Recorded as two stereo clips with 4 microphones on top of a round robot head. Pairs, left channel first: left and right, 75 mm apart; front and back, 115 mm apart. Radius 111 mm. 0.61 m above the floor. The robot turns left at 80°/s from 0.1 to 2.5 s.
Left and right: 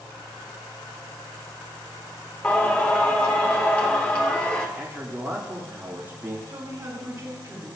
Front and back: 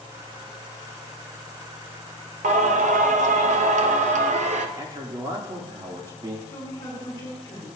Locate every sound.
2.4 s singing: 170° left, 0.8 m; by 4.7 s 165° left, 0.8 m
4.8 s a man speaking: 140° right, 1.7 m
6.5 s a woman speaking: 60° right, 3.5 m